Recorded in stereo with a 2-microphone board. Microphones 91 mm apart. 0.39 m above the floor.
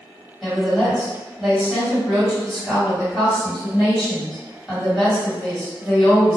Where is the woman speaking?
10° right (ahead or behind), 1.9 m.